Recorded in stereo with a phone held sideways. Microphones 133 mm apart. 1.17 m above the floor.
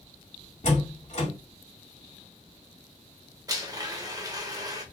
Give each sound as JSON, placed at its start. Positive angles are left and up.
{"t": 0.6, "sound": "a door slam", "side_deg": 55, "distance_m": 1.9}
{"t": 3.5, "sound": "a blender", "side_deg": -25, "distance_m": 0.9}